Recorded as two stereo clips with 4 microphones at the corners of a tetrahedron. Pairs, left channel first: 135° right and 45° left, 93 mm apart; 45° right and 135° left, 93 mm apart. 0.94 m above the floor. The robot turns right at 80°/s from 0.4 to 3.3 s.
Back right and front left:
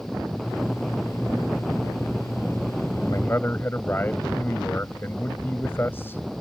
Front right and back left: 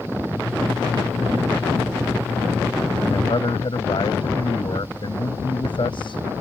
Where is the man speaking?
85° right; by 6.2 s 70° right.